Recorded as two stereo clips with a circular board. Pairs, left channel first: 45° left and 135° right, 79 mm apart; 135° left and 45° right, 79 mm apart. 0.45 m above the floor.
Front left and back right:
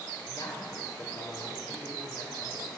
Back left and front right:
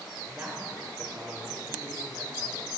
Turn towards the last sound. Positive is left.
turn(degrees=15)